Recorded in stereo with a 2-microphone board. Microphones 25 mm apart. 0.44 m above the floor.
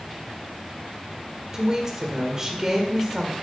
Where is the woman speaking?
25° right (ahead or behind), 1.6 m.